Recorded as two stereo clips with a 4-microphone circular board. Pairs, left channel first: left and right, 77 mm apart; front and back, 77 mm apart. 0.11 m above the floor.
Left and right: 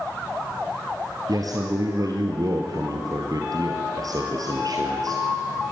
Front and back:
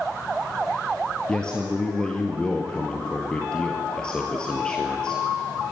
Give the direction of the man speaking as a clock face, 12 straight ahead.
3 o'clock.